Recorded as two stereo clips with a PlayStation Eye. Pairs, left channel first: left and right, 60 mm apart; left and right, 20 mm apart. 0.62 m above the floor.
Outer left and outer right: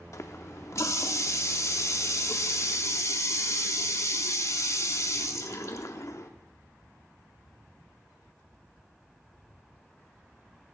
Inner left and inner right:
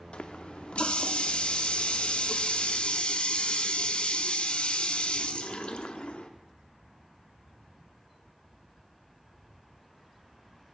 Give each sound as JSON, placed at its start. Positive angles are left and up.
{"t": 0.1, "sound": "a running tap", "side_deg": 60, "distance_m": 0.8}